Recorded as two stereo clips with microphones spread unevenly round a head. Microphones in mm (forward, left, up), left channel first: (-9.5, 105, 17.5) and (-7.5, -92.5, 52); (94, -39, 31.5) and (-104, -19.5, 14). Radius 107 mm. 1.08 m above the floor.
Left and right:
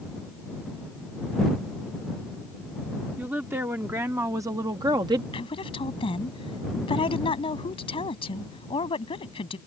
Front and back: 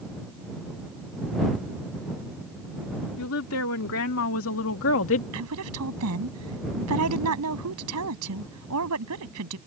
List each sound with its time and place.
3.2 s a woman speaking: 5° right; by 5.2 s 20° right
5.3 s a woman speaking: 155° left